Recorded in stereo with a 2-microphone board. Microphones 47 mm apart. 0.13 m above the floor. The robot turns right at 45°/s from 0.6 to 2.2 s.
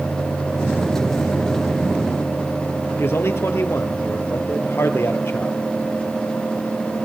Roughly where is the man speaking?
Left.